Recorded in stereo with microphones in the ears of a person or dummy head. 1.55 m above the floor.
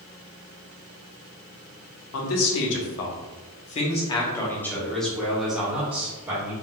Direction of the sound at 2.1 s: 75° left (ahead or behind).